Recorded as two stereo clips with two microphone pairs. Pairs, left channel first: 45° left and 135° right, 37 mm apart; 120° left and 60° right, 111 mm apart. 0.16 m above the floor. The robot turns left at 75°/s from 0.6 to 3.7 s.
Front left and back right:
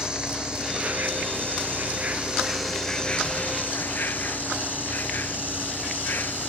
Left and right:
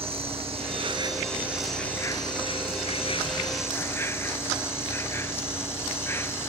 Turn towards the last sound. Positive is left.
turn(degrees=60)